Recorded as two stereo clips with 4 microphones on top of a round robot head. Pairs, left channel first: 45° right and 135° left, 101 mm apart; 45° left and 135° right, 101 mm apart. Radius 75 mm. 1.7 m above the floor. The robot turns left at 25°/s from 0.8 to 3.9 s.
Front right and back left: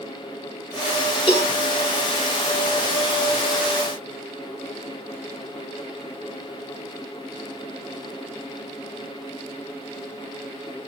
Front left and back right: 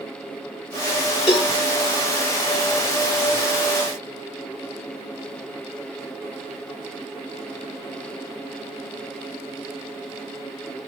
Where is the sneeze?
I don't hear a sneeze.